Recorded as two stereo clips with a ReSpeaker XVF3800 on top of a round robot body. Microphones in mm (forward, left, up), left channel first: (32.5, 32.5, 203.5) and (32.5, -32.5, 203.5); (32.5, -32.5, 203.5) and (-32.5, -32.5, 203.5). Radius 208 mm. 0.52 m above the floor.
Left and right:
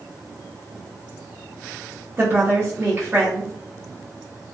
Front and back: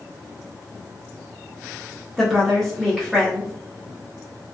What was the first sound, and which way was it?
A woman speaking, 85° right.